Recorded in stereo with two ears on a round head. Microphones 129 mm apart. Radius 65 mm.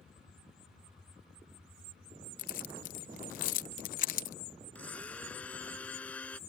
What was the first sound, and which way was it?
Keys jangling, 60° left (ahead or behind).